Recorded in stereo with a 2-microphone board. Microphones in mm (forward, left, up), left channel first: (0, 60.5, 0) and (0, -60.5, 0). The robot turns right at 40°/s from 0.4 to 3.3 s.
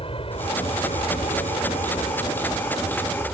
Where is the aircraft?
50° left (ahead or behind); by 3.4 s 10° left (ahead or behind).